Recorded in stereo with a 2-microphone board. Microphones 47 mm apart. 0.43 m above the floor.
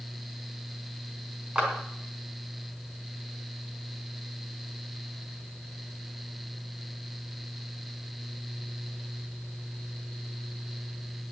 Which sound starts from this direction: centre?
A clap, at 1.6 s.